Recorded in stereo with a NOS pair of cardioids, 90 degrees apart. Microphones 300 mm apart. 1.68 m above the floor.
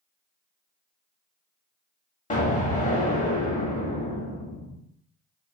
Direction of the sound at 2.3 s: 25° left.